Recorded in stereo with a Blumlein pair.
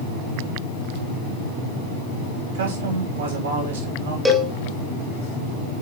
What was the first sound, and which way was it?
A man speaking, 65° right.